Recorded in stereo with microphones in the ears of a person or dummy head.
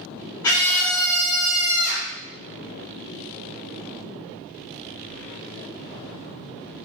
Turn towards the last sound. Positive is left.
turn(degrees=-10)  # may be behind; listen again after turning